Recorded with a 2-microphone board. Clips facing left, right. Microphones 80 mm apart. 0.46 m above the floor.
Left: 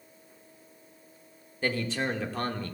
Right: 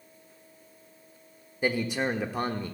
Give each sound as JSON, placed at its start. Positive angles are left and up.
{"t": 1.6, "sound": "a man speaking", "side_deg": -15, "distance_m": 0.9}